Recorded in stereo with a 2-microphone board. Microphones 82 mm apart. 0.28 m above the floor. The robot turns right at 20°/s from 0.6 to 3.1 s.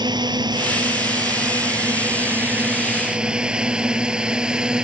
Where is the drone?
60° right (ahead or behind); by 4.8 s 10° right (ahead or behind).